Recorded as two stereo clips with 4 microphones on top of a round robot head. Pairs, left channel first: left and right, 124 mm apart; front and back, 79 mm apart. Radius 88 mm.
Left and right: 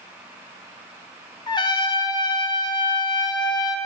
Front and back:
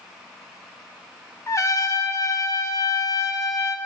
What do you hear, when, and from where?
1.5 s a trumpet: 40° left, 0.8 m